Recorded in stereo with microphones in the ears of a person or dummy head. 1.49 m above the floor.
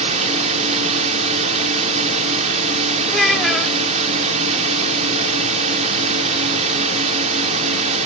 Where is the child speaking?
Centre (ahead or behind).